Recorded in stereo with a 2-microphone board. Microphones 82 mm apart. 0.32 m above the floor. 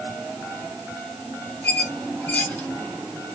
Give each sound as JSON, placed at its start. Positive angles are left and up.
{"t": 1.6, "sound": "a squeak", "side_deg": 20, "distance_m": 0.6}